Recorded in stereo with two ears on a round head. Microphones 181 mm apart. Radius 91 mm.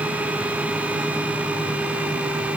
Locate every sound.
Only background noise.